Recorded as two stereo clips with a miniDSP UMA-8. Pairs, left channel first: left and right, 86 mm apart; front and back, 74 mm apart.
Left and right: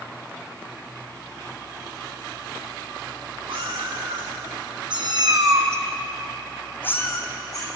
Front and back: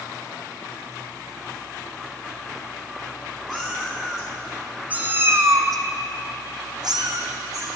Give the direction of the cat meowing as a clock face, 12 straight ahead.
3 o'clock.